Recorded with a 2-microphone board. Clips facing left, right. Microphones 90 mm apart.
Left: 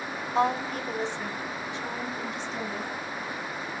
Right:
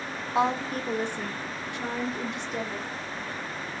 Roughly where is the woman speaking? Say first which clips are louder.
Even; centre.